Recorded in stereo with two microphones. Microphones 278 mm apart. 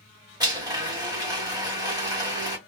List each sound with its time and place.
0.4 s a blender: 15° right (ahead or behind), 1.5 m